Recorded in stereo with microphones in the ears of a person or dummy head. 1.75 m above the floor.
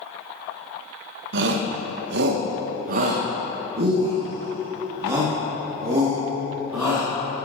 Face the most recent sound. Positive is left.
turn(degrees=-5)  # may be behind; listen again after turning